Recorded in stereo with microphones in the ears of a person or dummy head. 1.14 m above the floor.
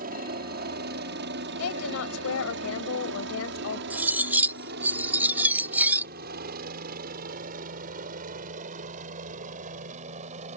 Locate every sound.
0.0 s a helicopter: 45° right (ahead or behind); by 10.6 s 40° right (ahead or behind)
1.6 s a woman speaking: 85° left
3.9 s cutlery clinking: 10° right (ahead or behind)